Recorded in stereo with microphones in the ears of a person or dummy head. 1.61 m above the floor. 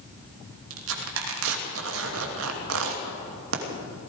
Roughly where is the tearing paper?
Right.